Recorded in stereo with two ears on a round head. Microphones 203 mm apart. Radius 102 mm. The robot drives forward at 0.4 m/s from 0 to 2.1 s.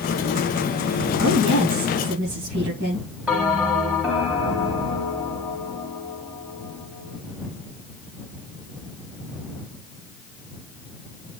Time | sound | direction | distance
1.2 | a woman speaking | 75° right (ahead or behind) | 4.5 m
3.3 | a bell | 5° right (ahead or behind) | 3 m